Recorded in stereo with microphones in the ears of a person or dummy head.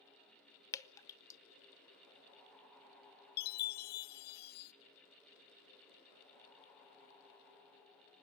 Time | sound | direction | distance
0.7 | dripping | 15° left (ahead or behind) | 0.7 m
3.4 | a chime | 50° left (ahead or behind) | 0.9 m